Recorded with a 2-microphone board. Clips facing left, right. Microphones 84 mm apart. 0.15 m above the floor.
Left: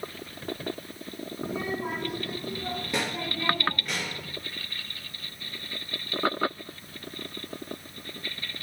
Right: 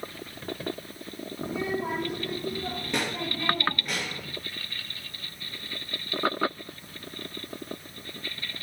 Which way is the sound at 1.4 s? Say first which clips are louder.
Right 2 dB; 10° left (ahead or behind).